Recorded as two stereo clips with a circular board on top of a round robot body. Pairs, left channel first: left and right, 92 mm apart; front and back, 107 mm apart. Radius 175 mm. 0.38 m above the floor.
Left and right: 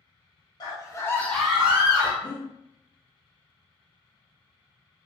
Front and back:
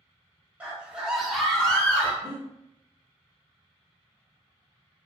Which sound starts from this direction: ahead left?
Breathing, at 2.2 s.